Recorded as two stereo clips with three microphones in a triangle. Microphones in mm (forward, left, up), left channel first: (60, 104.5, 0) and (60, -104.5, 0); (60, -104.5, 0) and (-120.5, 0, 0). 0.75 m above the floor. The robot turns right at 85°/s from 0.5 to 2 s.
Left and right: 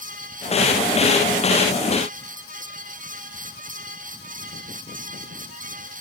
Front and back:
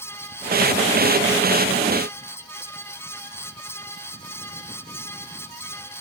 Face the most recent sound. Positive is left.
No sound to turn to.